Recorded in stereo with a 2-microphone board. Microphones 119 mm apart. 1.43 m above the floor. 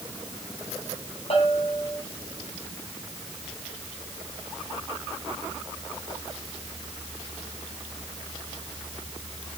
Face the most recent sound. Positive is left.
turn(degrees=50)  # may be behind; listen again after turning